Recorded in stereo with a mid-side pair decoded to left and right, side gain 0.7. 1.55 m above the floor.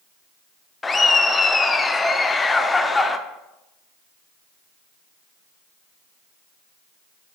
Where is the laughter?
15° left, 0.5 m.